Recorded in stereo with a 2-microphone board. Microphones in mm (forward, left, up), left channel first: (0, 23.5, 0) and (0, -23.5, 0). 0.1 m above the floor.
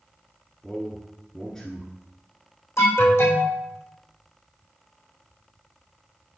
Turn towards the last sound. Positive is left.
turn(degrees=75)  # may be behind; listen again after turning